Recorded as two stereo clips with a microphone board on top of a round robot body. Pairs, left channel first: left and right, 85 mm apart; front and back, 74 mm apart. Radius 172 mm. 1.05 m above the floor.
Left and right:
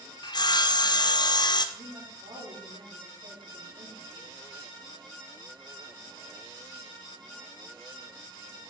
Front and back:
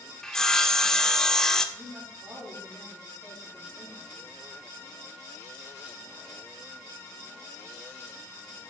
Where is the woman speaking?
120° right, 3 m.